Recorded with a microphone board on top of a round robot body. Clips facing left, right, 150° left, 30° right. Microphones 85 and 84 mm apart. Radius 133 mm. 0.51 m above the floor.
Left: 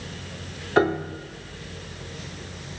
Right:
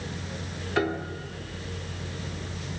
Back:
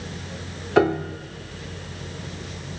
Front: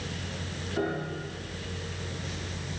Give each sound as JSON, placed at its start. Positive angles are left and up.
{"t": 0.8, "sound": "a piano", "azimuth_deg": 150, "distance_m": 0.6}